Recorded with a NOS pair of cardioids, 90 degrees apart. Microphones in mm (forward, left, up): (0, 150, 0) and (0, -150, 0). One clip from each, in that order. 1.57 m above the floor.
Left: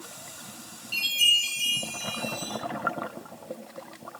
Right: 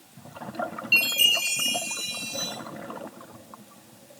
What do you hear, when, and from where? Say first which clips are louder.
0.9 s a chime: right 2 dB; 65° right, 1.2 m